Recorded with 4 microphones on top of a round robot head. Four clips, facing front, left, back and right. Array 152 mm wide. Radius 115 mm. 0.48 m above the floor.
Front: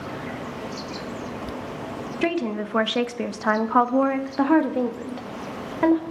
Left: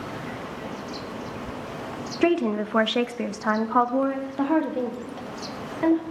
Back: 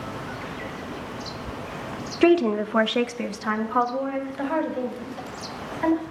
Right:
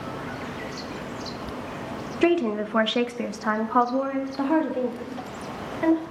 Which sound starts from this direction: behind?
A woman speaking, at 2.2 s.